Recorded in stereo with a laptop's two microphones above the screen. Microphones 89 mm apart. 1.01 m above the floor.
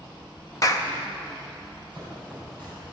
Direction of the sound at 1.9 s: 15° left (ahead or behind).